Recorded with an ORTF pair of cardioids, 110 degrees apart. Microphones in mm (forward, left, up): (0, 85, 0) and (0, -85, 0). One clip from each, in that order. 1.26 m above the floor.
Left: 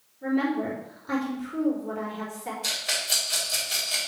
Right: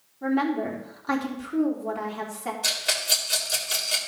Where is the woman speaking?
55° right, 4 m.